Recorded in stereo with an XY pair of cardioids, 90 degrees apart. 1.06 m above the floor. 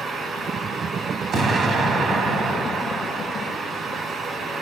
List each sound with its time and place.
0.0 s a fan: 60° right, 2.5 m
1.3 s an explosion: 65° right, 2 m